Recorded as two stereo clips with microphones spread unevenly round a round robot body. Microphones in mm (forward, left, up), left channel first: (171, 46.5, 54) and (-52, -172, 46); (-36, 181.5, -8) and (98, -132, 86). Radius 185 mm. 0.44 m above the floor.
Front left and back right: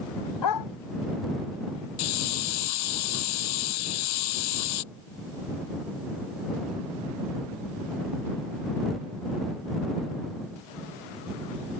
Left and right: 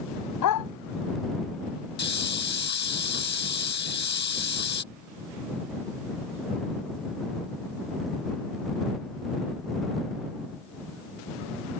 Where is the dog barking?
75° left.